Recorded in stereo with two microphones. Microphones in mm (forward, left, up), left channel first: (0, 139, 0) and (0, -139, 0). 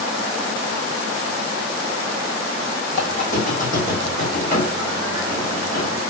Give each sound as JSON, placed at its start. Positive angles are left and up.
{"t": 2.9, "sound": "a squeak", "side_deg": 30, "distance_m": 1.4}